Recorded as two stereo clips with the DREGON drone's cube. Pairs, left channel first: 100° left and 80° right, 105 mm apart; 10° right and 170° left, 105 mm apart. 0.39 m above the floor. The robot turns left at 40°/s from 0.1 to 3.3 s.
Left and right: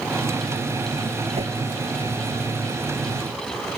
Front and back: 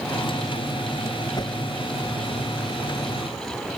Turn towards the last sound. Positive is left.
turn(degrees=-140)